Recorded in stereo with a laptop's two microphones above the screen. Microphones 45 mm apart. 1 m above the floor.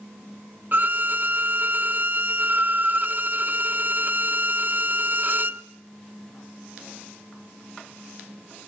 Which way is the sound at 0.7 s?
45° right (ahead or behind).